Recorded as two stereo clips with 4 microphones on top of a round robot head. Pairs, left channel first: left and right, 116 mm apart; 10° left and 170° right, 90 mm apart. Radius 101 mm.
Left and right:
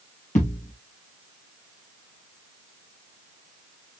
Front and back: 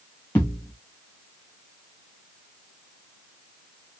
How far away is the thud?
About 3.5 m.